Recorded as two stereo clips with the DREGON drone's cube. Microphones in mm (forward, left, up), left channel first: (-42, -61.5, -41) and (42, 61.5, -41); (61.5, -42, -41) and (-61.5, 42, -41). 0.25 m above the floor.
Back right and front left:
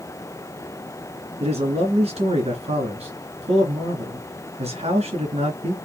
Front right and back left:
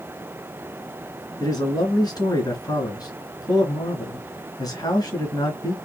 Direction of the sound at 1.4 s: 25° left.